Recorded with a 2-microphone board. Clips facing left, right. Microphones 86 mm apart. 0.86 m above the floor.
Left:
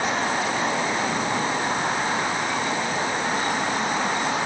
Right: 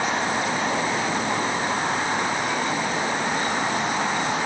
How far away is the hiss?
I don't hear a hiss.